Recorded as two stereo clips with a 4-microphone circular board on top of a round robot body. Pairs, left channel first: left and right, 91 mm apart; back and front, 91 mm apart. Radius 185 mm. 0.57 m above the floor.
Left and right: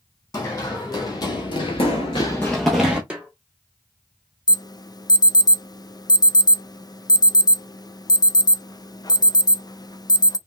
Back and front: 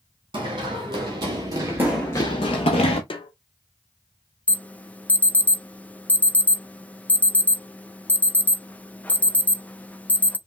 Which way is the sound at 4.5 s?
110° left.